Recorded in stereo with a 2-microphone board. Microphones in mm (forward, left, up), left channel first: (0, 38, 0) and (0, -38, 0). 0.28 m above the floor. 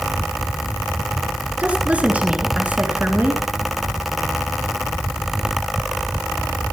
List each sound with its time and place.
1.6 s a woman speaking: 20° right (ahead or behind), 4 m